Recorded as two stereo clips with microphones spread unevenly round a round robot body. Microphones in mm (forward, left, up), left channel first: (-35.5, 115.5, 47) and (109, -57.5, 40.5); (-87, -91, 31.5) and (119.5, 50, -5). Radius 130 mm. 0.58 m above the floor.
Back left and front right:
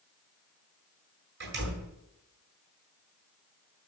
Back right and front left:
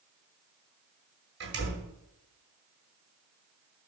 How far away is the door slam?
About 8.5 m.